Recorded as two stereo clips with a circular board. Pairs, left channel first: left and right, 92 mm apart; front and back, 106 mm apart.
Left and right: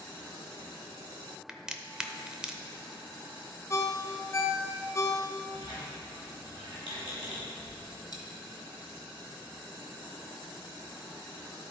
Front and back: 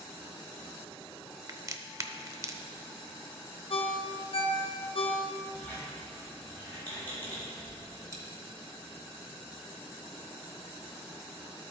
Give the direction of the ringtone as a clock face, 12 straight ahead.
11 o'clock.